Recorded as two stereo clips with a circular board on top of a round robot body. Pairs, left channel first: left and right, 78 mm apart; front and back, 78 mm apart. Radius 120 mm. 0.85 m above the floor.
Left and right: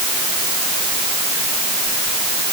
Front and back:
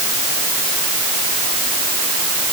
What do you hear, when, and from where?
Only background noise.